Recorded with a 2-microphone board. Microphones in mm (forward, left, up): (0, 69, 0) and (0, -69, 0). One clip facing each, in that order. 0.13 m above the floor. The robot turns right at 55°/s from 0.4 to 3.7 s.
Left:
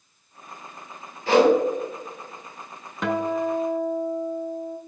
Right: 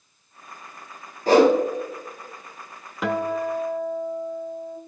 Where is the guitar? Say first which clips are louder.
Even; 5° right, 0.6 m; by 4.8 s 30° left, 0.6 m.